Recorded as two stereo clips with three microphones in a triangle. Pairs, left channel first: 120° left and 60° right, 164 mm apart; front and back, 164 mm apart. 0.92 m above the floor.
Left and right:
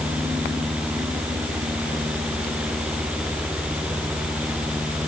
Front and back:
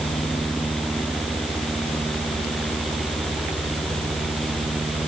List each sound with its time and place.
Only background noise.